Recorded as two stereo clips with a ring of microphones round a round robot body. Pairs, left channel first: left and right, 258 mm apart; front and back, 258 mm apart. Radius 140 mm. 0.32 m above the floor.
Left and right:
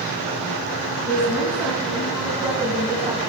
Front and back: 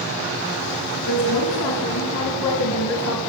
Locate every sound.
1.1 s a woman speaking: 5° left, 4.5 m; by 3.2 s 20° right, 2 m